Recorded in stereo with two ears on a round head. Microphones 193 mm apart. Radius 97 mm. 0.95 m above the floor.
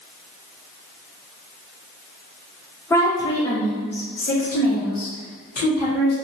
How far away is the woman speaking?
About 1.0 m.